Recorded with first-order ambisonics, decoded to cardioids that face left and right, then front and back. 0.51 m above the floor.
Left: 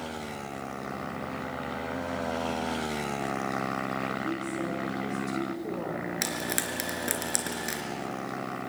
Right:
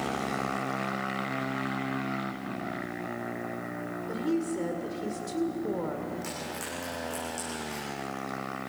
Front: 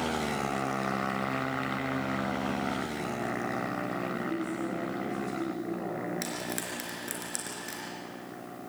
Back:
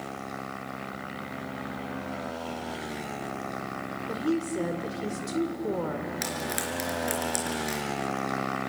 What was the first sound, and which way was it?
A woman speaking, 160° right.